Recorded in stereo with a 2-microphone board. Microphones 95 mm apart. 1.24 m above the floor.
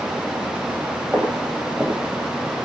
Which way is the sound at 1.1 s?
15° right (ahead or behind).